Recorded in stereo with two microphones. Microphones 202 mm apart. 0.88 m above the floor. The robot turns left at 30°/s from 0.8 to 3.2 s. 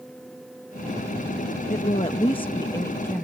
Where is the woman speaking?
55° left; by 3.2 s 10° left.